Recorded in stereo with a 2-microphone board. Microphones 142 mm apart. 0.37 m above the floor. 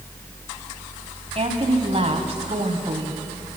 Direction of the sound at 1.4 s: 50° right (ahead or behind).